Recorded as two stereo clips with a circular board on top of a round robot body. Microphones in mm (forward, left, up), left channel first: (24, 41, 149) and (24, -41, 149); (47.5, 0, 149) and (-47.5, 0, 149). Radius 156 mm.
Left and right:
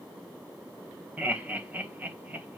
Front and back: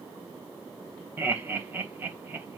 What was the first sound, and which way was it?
Laughter, 135° right.